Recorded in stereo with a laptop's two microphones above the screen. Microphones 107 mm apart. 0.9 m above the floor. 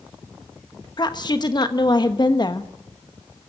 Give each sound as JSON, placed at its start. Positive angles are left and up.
{"t": 1.0, "sound": "a woman speaking", "side_deg": 40, "distance_m": 1.2}